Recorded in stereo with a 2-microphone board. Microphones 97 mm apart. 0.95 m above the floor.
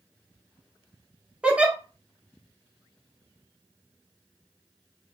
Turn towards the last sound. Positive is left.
turn(degrees=-15)  # may be behind; listen again after turning